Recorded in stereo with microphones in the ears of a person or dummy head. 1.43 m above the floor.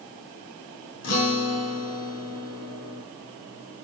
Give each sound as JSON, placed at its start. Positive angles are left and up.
{"t": 1.0, "sound": "a guitar", "side_deg": 70, "distance_m": 2.5}